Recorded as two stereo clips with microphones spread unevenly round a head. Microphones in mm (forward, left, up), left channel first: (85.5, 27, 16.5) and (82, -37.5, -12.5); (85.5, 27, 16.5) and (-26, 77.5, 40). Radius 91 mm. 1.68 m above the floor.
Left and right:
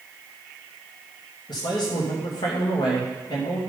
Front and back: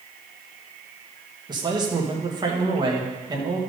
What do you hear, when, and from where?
1.5 s a man speaking: 100° left, 2 m